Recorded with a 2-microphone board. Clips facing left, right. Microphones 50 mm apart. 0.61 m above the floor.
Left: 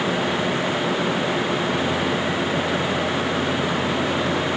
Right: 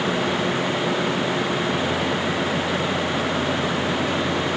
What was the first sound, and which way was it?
Only background noise.